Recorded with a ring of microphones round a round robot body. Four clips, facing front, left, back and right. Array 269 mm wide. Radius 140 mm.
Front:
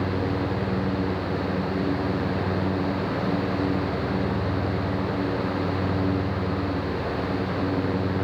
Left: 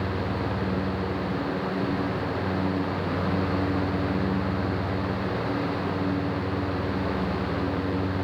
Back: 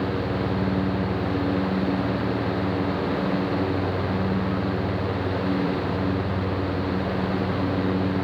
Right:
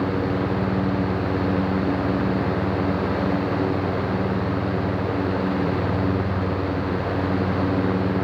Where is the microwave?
I don't hear a microwave.